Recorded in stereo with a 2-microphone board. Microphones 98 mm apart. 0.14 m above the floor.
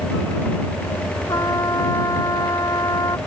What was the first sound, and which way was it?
A trumpet, 40° left (ahead or behind).